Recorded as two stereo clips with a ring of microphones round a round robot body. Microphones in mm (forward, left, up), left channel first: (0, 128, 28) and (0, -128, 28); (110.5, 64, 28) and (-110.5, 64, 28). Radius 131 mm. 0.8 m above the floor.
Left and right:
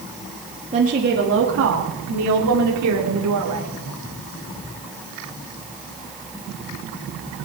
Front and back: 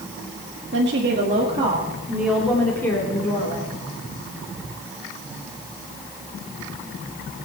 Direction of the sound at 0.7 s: 155° right.